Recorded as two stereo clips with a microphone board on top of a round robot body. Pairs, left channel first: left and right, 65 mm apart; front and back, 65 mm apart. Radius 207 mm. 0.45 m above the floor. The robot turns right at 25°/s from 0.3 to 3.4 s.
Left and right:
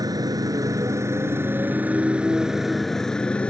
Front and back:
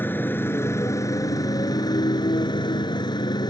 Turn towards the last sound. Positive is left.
turn(degrees=15)